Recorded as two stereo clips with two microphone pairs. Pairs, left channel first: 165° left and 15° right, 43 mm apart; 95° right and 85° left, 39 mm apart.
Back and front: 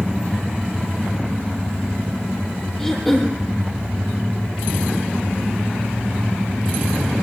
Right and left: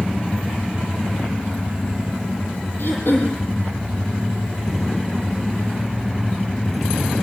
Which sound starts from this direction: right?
Throat clearing, at 2.8 s.